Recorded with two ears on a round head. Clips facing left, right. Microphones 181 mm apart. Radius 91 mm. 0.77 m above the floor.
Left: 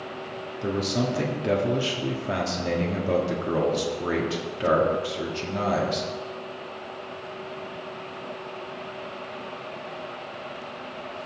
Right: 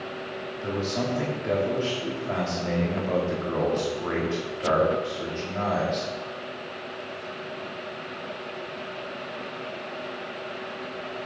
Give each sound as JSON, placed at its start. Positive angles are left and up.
{"t": 0.6, "sound": "a man speaking", "side_deg": 45, "distance_m": 1.2}